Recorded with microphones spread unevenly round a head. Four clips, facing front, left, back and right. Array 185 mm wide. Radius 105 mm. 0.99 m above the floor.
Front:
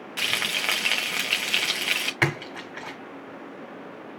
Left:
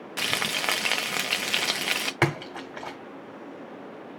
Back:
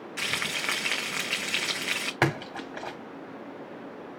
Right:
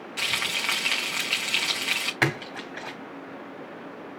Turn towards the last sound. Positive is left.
turn(degrees=125)